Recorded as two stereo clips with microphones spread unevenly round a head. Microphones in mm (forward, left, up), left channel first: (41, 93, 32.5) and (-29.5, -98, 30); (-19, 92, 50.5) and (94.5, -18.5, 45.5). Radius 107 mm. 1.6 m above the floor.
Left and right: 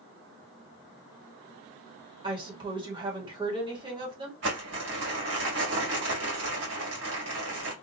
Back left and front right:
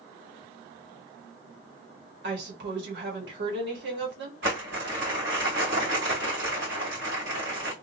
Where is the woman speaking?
40° right, 1.3 m.